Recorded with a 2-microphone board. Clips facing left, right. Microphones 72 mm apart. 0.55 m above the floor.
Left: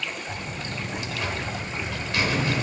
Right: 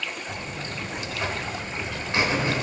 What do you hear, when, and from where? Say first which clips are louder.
0.3 s a buzzer: even; 25° right (ahead or behind), 0.9 m